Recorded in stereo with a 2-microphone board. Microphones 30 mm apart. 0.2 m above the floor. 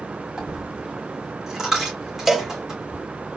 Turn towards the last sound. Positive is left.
turn(degrees=-5)  # may be behind; listen again after turning